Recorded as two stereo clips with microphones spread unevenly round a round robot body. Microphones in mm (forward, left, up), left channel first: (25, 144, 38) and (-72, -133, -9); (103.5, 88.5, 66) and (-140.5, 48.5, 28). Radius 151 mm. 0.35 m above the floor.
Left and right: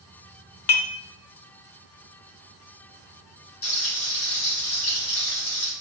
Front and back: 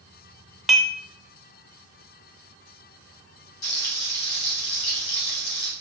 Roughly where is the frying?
Ahead.